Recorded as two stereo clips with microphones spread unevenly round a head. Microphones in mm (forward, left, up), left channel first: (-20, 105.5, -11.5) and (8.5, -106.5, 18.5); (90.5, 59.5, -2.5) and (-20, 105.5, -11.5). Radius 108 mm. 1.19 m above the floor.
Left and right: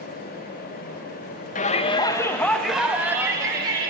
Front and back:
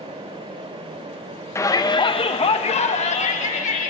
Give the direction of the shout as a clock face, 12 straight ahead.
11 o'clock.